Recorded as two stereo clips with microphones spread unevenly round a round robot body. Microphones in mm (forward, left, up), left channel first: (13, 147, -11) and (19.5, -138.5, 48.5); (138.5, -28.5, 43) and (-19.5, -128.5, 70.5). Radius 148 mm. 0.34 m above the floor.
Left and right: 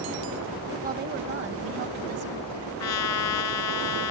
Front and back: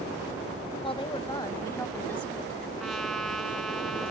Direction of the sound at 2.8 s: 120° left.